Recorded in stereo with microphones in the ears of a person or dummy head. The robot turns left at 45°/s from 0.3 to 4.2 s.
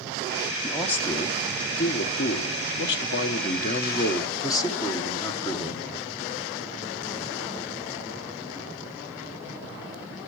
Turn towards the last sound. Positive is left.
turn(degrees=25)